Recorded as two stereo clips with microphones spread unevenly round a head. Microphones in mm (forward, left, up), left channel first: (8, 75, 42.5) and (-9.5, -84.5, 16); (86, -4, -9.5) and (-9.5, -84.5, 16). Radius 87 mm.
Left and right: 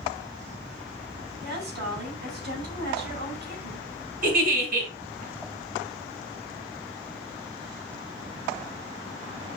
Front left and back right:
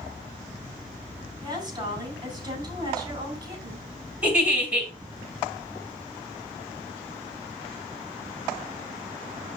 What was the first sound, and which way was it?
A woman speaking, 85° right.